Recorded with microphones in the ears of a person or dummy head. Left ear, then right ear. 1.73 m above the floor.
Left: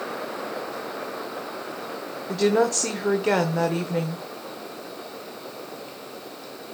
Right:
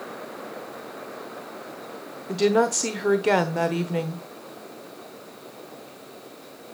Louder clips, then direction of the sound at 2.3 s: Even; 10° right (ahead or behind).